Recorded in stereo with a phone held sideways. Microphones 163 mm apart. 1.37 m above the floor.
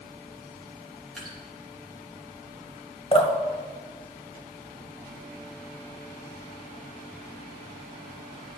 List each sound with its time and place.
1.2 s dripping: 5° left (ahead or behind), 2 m
3.1 s dripping: 35° left (ahead or behind), 1.0 m